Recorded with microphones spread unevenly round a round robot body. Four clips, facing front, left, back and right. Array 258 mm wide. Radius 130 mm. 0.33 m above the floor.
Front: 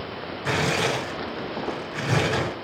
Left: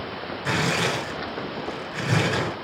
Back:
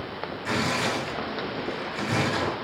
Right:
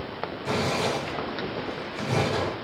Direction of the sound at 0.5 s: 65° left.